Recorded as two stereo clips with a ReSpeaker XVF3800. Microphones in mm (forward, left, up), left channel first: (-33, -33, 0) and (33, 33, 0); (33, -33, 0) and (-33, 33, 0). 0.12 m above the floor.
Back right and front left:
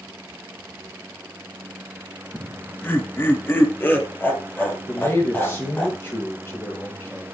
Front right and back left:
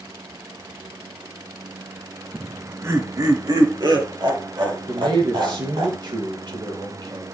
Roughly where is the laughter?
Behind.